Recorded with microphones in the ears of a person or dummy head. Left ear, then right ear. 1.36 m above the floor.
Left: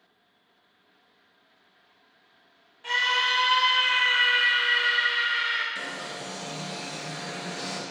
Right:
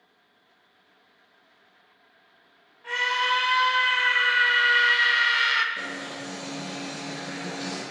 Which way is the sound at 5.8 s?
70° left (ahead or behind).